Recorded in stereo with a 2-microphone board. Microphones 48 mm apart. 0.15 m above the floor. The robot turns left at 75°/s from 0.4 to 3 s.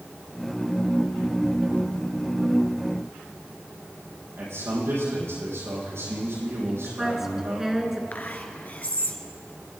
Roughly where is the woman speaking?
Centre.